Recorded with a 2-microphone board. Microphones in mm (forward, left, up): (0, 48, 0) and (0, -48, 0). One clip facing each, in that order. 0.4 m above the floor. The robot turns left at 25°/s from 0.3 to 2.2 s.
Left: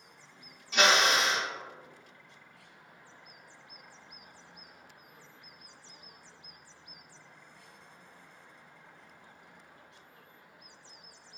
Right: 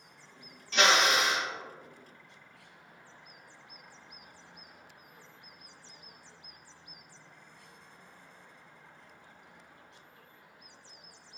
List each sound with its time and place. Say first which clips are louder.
0.7 s a drill: even; 10° left (ahead or behind), 0.9 m; by 1.5 s 10° right (ahead or behind), 0.9 m